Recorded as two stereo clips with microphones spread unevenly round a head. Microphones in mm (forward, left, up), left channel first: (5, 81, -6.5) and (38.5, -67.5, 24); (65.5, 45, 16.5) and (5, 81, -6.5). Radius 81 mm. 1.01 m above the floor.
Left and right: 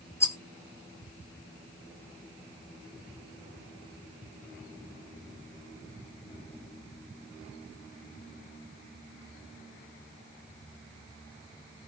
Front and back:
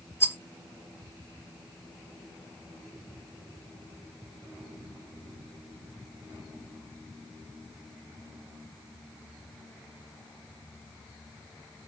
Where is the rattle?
30° left, 2.5 m.